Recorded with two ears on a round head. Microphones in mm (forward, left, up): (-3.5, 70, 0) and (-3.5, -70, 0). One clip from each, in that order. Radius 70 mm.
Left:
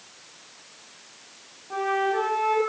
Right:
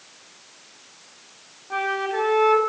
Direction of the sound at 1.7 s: 50° right (ahead or behind).